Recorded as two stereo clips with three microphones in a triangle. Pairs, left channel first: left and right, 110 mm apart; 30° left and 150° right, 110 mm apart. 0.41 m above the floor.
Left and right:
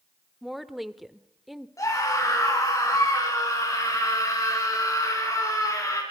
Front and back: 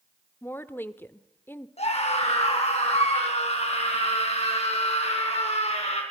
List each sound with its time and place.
0.4 s a woman speaking: 5° right, 0.9 m
1.8 s a scream: 30° left, 4 m